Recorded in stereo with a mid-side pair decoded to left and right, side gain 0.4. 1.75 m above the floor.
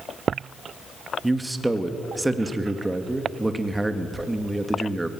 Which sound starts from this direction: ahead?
A man speaking, at 1.2 s.